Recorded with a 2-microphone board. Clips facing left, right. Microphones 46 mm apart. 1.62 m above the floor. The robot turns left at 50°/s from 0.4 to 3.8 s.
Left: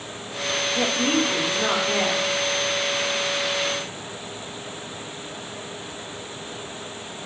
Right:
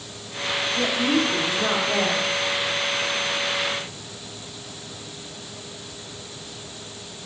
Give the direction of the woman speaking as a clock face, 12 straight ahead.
10 o'clock.